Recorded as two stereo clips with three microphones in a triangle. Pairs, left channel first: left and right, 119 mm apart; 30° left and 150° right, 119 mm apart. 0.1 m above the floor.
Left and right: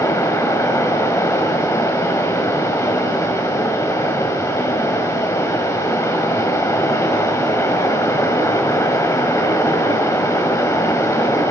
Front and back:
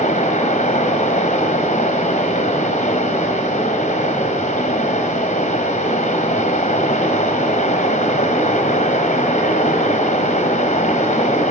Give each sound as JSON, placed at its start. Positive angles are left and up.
{"t": 0.0, "sound": "running water", "azimuth_deg": 25, "distance_m": 1.2}